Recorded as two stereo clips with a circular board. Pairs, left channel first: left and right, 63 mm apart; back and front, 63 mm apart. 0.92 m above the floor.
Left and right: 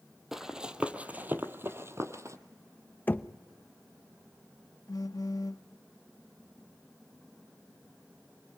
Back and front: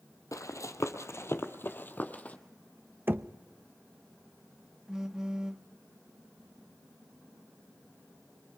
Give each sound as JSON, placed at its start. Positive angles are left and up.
{"t": 0.3, "sound": "running footsteps", "azimuth_deg": -175, "distance_m": 1.6}
{"t": 3.1, "sound": "knocking", "azimuth_deg": 40, "distance_m": 0.8}
{"t": 4.9, "sound": "a phone buzzing", "azimuth_deg": 80, "distance_m": 0.7}